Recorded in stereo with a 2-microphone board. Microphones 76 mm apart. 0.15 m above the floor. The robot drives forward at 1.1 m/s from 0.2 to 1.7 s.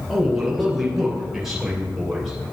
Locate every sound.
0.1 s a man speaking: 5° right (ahead or behind), 1.6 m